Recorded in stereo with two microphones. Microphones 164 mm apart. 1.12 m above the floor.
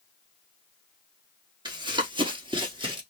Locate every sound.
1.6 s running footsteps: 25° right (ahead or behind), 1.2 m; by 3.0 s 30° right (ahead or behind), 1.5 m